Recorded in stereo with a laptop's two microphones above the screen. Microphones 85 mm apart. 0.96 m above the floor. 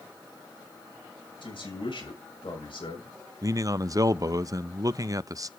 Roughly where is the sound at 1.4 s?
Left.